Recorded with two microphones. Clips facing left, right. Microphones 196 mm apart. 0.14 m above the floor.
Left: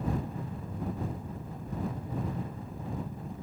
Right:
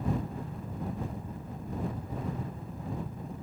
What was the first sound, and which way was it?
Only background noise.